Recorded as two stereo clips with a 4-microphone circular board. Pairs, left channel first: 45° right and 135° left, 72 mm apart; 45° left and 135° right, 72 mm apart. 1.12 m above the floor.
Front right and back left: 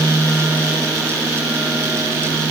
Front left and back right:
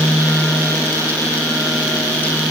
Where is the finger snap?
I don't hear a finger snap.